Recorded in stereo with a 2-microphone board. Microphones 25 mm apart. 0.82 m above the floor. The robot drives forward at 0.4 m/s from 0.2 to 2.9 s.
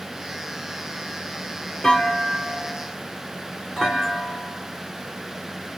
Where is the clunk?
30° left (ahead or behind), 1.8 m; by 5.8 s 25° left (ahead or behind), 2 m.